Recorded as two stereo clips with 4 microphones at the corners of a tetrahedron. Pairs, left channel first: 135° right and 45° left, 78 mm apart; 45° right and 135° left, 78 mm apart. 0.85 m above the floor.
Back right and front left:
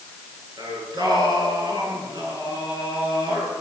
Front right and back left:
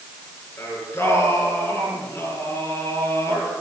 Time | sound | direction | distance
0.6 | singing | 15° left | 6.5 m